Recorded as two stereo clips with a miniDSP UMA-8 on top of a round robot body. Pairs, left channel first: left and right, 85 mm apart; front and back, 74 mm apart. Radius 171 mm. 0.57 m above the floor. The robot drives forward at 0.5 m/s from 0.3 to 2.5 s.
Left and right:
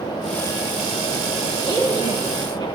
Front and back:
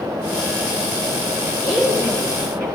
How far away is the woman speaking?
About 1.6 m.